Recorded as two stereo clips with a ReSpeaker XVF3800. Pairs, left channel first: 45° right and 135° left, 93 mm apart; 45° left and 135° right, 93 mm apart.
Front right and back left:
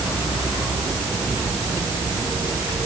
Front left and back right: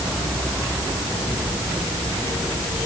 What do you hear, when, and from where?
Only background noise.